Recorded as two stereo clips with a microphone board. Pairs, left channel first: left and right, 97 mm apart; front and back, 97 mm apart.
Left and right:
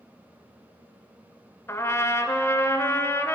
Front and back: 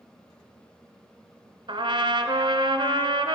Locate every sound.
1.7 s a trumpet: 150° left, 0.7 m